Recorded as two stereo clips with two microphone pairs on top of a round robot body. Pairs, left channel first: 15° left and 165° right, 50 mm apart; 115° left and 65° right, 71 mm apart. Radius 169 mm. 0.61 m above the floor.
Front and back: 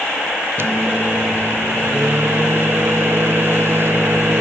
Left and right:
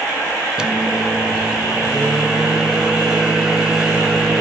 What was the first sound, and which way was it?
A microwave, 145° right.